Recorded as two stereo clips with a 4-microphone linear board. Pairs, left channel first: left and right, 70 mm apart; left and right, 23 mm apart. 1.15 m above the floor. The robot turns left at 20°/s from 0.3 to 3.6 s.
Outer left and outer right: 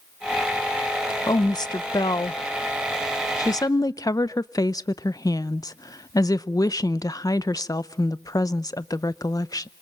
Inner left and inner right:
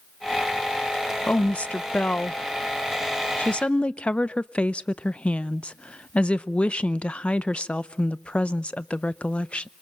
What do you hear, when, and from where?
1.3 s a woman speaking: 105° left, 0.6 m; by 9.7 s 60° left, 0.6 m